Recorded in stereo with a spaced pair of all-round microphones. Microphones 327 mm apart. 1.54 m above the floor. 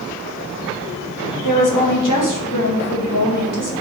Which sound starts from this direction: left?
A woman speaking, at 1.4 s.